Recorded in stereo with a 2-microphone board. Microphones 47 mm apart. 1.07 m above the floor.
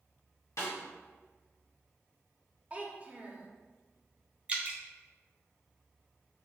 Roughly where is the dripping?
Right.